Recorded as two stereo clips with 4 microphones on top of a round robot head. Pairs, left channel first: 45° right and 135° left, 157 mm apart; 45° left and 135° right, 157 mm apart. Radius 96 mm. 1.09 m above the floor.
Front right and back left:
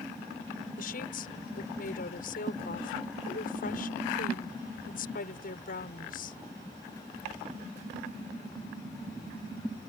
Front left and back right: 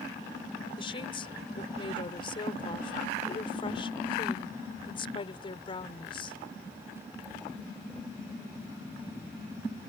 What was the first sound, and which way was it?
A woman speaking, 15° right.